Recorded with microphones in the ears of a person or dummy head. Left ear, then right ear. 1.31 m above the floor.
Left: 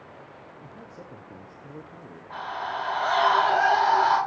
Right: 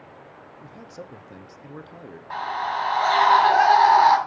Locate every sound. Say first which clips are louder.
0.6 s a man speaking: right 6 dB; 40° right (ahead or behind), 0.7 m
2.3 s a scream: right 5 dB; 65° right (ahead or behind), 3.5 m